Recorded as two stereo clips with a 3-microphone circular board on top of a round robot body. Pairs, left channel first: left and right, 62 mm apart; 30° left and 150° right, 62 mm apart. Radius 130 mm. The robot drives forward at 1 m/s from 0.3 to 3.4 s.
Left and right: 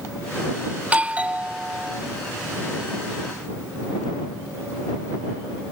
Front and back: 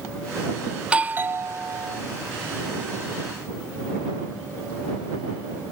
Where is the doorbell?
90° right, 0.9 m; by 2.0 s 165° right, 1.5 m.